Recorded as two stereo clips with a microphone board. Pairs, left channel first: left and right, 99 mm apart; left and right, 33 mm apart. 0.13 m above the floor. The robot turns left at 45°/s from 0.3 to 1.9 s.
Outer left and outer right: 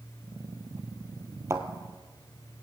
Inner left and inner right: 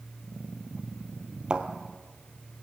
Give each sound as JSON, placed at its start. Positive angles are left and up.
{"t": 1.5, "sound": "a thud", "side_deg": -30, "distance_m": 1.0}